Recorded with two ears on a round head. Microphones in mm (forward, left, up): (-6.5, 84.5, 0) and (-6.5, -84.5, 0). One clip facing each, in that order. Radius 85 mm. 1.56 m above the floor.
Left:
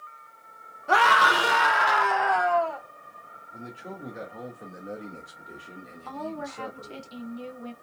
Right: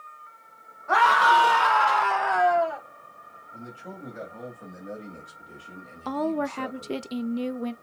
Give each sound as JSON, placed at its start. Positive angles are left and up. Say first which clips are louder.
{"t": 0.9, "sound": "a scream", "louder": "right 1 dB", "side_deg": 40, "distance_m": 1.2}
{"t": 3.5, "sound": "a man speaking", "louder": "left 1 dB", "side_deg": 20, "distance_m": 2.0}
{"t": 6.0, "sound": "a woman speaking", "louder": "right 9 dB", "side_deg": -65, "distance_m": 0.5}